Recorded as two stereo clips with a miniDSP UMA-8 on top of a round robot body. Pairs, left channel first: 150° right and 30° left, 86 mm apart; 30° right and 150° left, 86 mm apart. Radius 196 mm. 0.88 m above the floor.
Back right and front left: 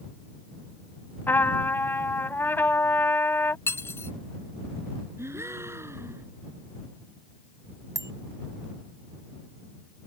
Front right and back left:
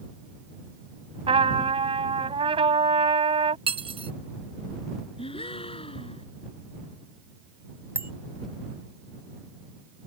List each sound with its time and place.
1.3 s a trumpet: 140° left
3.7 s cutlery clinking: 145° left
5.2 s a gasp: 35° right
8.0 s a bicycle bell: 85° left